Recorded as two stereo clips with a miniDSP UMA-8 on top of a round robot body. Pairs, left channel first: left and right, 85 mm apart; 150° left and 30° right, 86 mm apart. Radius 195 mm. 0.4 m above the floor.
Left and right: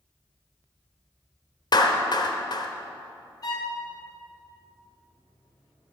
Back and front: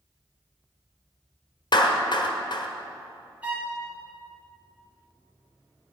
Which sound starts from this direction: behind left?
A clap, at 1.7 s.